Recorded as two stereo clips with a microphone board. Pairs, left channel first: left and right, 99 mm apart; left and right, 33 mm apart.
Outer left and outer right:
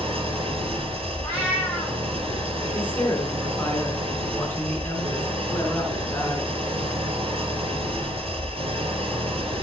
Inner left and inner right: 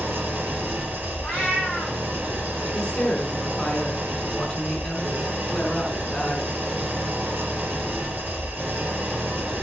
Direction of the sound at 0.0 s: 70° right (ahead or behind).